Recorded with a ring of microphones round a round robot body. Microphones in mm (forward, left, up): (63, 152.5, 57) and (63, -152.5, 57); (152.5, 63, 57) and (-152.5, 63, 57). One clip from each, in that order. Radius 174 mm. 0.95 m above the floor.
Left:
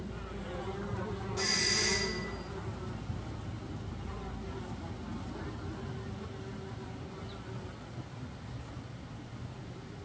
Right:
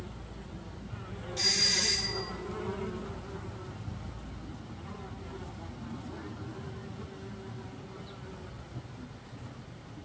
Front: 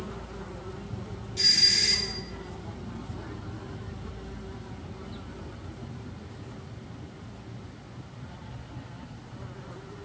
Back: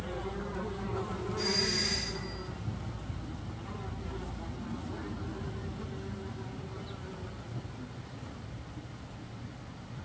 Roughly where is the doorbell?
Ahead right.